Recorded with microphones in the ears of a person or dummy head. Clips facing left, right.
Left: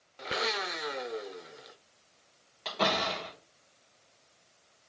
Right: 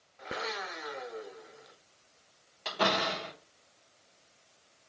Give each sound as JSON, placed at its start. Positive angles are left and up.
{"t": 0.2, "sound": "a blender", "side_deg": 45, "distance_m": 0.7}
{"t": 2.6, "sound": "a door slam", "side_deg": -5, "distance_m": 3.0}